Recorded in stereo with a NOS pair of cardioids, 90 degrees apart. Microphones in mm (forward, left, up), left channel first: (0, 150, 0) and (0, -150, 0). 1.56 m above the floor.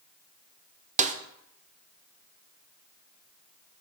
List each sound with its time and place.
1.0 s a snare drum: 25° right, 0.6 m